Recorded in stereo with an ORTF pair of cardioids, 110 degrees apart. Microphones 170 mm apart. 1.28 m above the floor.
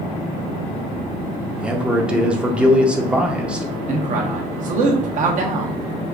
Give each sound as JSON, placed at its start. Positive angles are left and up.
{"t": 1.6, "sound": "a man speaking", "azimuth_deg": -5, "distance_m": 0.7}
{"t": 3.9, "sound": "a man speaking", "azimuth_deg": -50, "distance_m": 1.0}